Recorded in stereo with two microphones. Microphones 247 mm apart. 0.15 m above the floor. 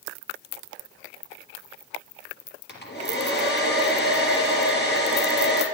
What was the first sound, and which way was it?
A hair dryer, 45° left (ahead or behind).